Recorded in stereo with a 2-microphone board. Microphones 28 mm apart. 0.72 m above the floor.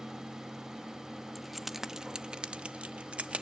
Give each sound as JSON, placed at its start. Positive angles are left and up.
{"t": 1.4, "sound": "keys jangling", "side_deg": 5, "distance_m": 0.6}